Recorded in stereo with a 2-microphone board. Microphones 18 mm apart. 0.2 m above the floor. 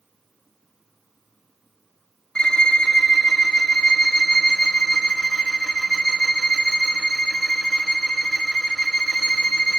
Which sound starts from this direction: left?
A violin, at 2.4 s.